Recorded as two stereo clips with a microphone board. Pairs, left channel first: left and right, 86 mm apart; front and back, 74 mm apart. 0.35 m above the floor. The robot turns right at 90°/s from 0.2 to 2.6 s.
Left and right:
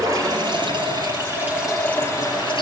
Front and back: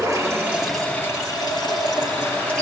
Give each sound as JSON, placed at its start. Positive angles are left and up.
{"t": 0.0, "sound": "running water", "azimuth_deg": -135, "distance_m": 5.0}